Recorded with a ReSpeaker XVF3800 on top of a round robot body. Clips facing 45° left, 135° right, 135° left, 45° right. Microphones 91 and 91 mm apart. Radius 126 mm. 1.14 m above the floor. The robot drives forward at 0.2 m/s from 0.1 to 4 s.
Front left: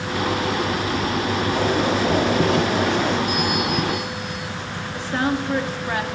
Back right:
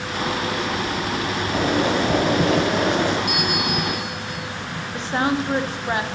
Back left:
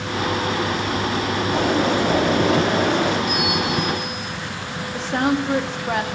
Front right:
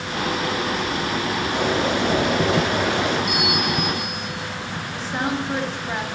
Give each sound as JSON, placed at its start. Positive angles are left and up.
{"t": 1.5, "sound": "boiling", "azimuth_deg": 180, "distance_m": 4.0}
{"t": 3.3, "sound": "a bell", "azimuth_deg": -125, "distance_m": 1.8}
{"t": 4.9, "sound": "a woman speaking", "azimuth_deg": 160, "distance_m": 1.1}